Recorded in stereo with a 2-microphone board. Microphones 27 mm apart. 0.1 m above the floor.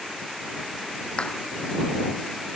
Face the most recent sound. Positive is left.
turn(degrees=40)  # may be behind; listen again after turning